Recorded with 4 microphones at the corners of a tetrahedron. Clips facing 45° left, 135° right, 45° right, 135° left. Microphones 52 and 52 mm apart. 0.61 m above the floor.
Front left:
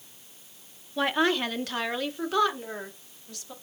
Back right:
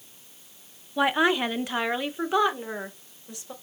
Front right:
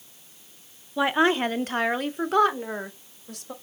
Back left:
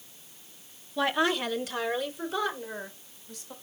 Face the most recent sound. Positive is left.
turn(degrees=-65)